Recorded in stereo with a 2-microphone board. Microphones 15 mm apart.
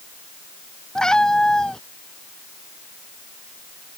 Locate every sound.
0.9 s a cat meowing: 50° left (ahead or behind)